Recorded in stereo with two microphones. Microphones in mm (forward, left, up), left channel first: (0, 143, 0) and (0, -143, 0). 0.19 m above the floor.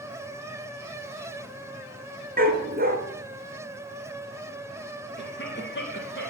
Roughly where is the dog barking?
Right.